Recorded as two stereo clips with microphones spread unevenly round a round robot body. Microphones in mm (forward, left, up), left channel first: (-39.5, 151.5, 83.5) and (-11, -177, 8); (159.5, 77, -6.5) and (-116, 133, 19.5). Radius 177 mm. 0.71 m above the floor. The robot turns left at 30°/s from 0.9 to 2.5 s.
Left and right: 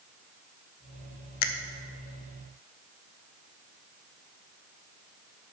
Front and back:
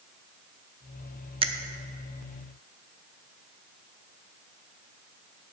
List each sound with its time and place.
1.4 s a finger snap: 95° left, 0.8 m; by 1.5 s 90° left, 0.8 m